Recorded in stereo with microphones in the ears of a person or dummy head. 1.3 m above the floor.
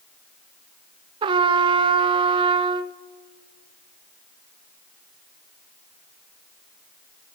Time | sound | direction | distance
1.2 | a trumpet | 30° right (ahead or behind) | 0.5 m